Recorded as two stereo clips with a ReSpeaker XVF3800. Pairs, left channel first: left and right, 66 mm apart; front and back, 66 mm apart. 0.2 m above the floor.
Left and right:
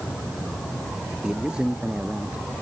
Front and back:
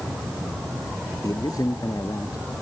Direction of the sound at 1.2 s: 10° right.